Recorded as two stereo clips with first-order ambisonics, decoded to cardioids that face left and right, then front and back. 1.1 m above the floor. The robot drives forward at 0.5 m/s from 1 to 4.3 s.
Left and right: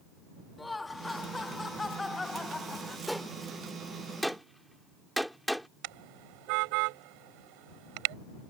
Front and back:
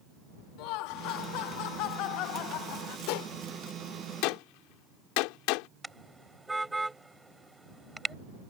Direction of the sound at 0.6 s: 10° left.